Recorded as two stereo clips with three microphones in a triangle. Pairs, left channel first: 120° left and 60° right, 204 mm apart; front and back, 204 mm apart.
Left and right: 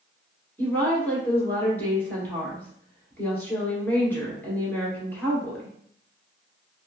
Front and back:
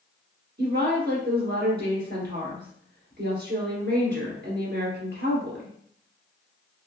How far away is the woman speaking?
About 2 m.